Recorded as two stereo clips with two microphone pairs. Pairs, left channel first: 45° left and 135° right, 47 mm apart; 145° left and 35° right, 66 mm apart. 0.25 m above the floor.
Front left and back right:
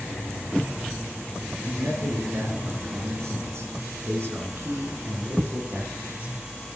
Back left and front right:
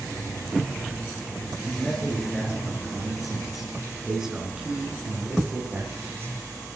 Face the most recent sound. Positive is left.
turn(degrees=-70)